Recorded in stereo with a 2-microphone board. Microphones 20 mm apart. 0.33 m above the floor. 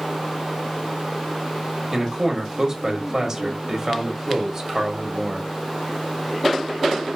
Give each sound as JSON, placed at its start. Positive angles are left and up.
{"t": 1.9, "sound": "a man speaking", "side_deg": -25, "distance_m": 1.0}